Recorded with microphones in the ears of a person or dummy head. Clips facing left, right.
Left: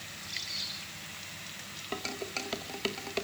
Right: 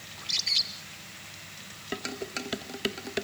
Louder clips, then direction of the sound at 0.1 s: Right 1 dB; 75° right (ahead or behind).